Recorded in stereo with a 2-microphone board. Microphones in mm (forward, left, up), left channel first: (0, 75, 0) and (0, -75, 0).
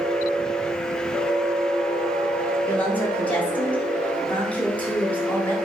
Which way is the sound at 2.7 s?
10° left (ahead or behind).